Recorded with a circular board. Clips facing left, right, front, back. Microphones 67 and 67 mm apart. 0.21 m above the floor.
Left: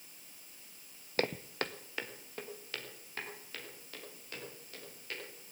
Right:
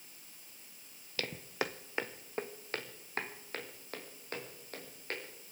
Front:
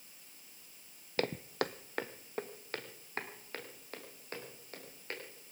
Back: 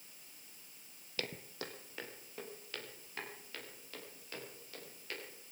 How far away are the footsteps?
About 0.5 m.